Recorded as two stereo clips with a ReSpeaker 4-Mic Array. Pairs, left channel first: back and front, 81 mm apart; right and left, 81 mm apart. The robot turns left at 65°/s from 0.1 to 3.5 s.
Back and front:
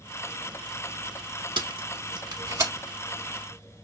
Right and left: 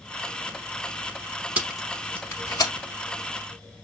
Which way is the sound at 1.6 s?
20° left.